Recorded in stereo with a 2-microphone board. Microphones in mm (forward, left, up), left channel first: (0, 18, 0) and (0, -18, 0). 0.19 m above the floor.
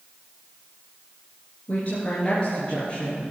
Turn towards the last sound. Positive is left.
turn(degrees=20)  # may be behind; listen again after turning